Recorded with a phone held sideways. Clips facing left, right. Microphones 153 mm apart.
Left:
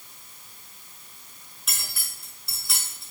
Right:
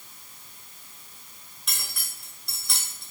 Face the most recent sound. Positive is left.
turn(degrees=0)  # may be behind; listen again after turning